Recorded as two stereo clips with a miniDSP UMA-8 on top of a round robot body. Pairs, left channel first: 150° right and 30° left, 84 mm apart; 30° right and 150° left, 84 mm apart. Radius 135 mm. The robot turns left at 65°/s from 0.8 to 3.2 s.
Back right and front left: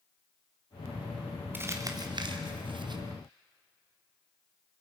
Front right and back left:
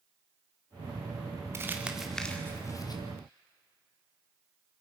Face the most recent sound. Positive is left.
turn(degrees=-15)